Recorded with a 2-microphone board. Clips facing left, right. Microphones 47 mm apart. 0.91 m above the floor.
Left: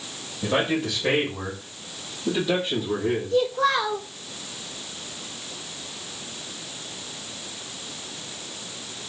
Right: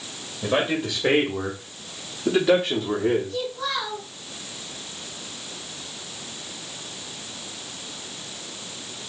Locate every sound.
0.4 s a man speaking: 5° right (ahead or behind), 1.3 m; by 3.4 s 70° right (ahead or behind), 1.8 m
3.3 s a child speaking: 50° left (ahead or behind), 1.1 m